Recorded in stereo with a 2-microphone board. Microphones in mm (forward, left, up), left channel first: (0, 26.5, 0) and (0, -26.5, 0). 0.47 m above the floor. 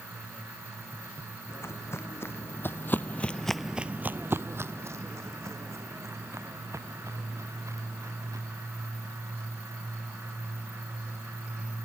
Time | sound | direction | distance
1.5 | footsteps | 55° left (ahead or behind) | ?